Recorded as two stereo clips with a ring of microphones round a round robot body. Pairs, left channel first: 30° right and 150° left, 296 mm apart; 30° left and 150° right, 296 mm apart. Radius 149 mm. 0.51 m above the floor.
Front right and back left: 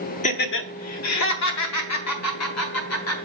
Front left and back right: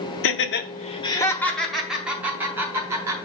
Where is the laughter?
25° left, 0.9 m; by 3.2 s 70° right, 3 m.